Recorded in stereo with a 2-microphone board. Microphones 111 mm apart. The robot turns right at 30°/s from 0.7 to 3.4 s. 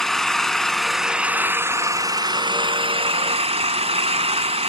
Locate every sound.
0.0 s an engine running: 175° left, 1.0 m; by 4.7 s 105° right, 1.0 m